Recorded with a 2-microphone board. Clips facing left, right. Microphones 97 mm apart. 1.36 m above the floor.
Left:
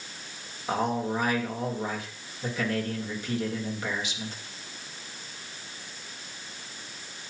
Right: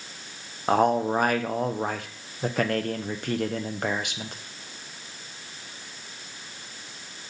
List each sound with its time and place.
0.7 s a man speaking: 60° right (ahead or behind), 1.1 m